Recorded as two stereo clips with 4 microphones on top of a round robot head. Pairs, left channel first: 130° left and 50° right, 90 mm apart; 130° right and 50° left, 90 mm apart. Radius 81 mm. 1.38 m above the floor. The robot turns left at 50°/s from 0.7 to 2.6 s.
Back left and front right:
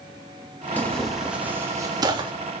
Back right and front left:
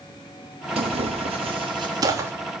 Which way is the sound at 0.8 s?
60° left.